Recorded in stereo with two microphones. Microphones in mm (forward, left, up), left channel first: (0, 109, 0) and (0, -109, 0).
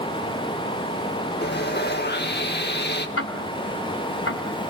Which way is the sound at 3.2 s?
80° left.